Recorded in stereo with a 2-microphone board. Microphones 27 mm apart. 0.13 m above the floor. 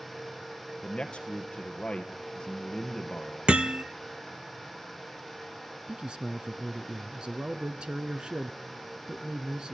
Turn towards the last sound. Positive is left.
turn(degrees=-35)  # may be behind; listen again after turning